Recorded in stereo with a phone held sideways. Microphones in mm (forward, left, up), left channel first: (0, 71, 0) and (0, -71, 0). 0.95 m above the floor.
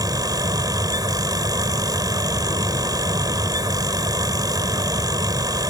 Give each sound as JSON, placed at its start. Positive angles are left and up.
{"t": 0.0, "sound": "a fan", "side_deg": -25}